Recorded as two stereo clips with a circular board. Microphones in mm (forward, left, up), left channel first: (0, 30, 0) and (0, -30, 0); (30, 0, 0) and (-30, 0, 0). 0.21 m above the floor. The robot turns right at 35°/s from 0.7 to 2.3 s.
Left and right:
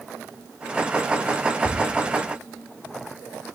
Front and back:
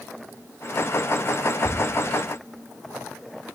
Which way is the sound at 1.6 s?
140° left.